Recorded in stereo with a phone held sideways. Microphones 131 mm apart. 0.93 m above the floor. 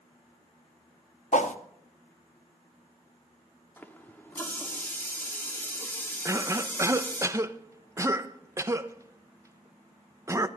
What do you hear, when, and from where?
1.3 s a whoosh: 65° left (ahead or behind), 0.8 m
3.8 s a running tap: 15° left (ahead or behind), 1.2 m
6.2 s a cough: 25° right (ahead or behind), 0.6 m